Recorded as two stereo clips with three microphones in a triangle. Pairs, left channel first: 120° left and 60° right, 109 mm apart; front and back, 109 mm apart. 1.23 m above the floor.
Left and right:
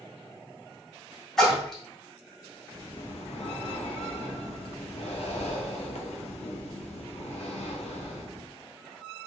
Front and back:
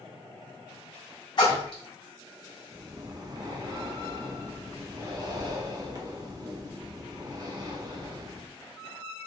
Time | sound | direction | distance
1.4 | a splash | 35° left | 1.6 m
2.7 | breathing | 130° left | 0.6 m